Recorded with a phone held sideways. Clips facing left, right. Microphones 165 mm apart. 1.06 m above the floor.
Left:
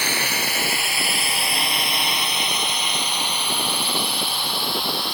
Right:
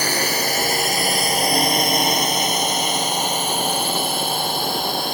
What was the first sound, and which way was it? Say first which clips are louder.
A drone: right 5 dB; 35° right (ahead or behind).